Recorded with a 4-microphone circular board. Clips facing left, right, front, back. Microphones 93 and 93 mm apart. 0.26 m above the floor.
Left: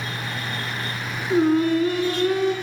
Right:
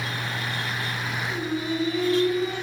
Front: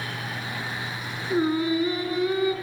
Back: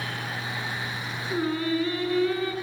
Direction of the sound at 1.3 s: 70° left.